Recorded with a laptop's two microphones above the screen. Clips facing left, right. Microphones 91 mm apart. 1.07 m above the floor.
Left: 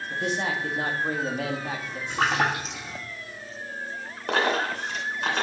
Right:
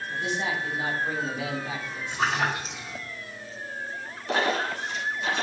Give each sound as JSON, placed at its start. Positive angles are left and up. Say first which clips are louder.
{"t": 0.1, "sound": "a man speaking", "louder": "left 2 dB", "side_deg": 50, "distance_m": 1.6}
{"t": 2.1, "sound": "a splash", "louder": "left 2 dB", "side_deg": 70, "distance_m": 2.0}
{"t": 4.3, "sound": "a dropped coin", "louder": "left 1 dB", "side_deg": 60, "distance_m": 2.5}